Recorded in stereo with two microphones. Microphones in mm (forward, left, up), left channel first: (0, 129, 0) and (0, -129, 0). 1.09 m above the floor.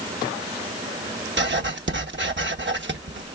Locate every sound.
1.4 s writing: 45° right (ahead or behind), 0.8 m